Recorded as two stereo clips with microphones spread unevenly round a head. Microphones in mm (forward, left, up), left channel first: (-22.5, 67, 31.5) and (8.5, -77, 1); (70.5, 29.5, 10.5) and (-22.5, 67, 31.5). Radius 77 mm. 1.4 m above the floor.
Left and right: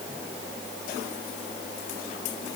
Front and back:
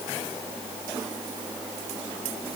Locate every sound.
Only background noise.